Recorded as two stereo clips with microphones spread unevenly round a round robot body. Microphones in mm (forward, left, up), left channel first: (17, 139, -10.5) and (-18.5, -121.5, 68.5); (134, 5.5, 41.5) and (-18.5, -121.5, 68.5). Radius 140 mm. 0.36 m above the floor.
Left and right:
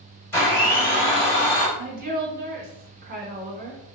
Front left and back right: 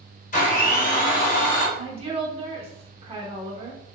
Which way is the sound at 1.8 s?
145° right.